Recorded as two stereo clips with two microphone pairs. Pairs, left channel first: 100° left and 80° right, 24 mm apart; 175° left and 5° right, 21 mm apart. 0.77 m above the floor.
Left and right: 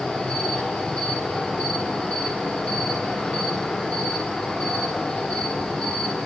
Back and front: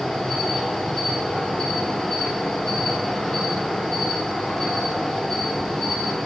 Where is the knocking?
I don't hear knocking.